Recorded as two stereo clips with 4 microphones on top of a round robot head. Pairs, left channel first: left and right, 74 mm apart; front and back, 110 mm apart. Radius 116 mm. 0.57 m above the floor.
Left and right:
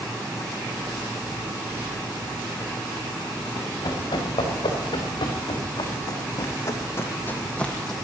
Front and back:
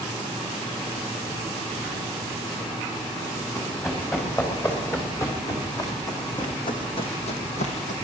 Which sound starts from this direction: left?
Running footsteps, at 3.5 s.